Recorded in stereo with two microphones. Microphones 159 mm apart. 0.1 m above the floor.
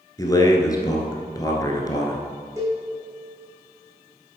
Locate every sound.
0.2 s a man speaking: 25° left (ahead or behind), 1.4 m
2.6 s a cowbell: 20° right (ahead or behind), 2.5 m